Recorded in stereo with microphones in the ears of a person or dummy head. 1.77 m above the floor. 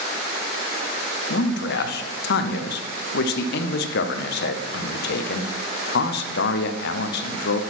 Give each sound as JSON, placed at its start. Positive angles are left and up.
{"t": 1.3, "sound": "a man speaking", "side_deg": 65, "distance_m": 0.9}